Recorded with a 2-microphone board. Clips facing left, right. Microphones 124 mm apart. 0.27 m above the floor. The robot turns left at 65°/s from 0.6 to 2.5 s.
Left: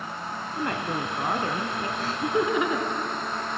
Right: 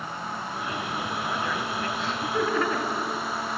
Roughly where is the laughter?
Left.